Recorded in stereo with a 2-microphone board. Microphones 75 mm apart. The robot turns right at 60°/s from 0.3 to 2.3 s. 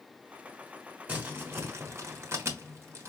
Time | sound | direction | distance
1.1 | crumpling | 20° right (ahead or behind) | 1.3 m